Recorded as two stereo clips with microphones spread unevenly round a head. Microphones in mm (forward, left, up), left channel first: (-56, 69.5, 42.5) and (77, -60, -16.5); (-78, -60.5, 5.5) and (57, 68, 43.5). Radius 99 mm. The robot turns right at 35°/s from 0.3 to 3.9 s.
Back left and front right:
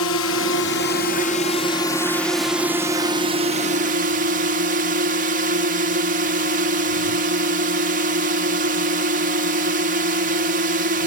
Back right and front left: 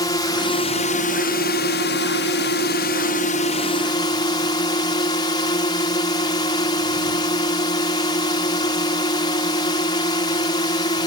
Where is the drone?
160° left; by 11.1 s 75° right.